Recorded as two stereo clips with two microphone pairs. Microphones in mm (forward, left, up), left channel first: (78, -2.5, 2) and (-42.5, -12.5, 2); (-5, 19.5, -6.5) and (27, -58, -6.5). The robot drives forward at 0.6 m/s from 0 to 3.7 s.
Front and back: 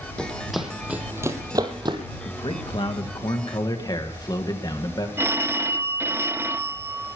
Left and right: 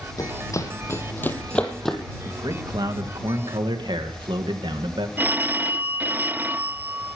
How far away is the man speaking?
About 3 m.